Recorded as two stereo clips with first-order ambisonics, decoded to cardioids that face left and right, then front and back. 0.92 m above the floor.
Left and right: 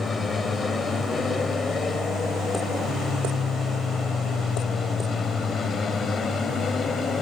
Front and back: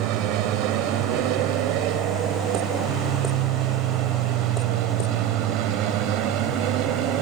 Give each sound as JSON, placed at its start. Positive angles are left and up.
{"t": 0.0, "sound": "an aircraft", "azimuth_deg": 165}